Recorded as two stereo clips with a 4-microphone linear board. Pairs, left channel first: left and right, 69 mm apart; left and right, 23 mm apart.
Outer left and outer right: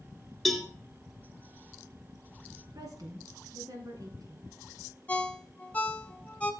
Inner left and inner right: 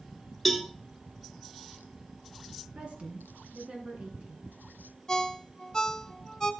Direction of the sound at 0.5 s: 5° left (ahead or behind).